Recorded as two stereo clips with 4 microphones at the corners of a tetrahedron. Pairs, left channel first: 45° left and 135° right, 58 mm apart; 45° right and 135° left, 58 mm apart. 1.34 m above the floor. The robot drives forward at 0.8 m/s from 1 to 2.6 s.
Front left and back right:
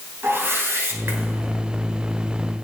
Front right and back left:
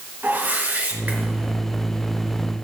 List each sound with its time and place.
0.2 s a whoosh: 175° right, 2.5 m